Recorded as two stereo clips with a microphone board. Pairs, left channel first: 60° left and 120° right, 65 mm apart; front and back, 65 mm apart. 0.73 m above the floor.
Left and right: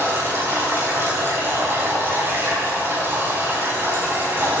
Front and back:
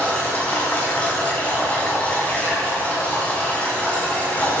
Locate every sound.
0.0 s running water: 70° right, 5.5 m